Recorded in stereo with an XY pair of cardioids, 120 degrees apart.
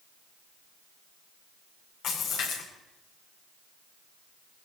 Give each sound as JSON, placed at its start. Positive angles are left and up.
{"t": 2.0, "sound": "a splash", "azimuth_deg": 70, "distance_m": 8.5}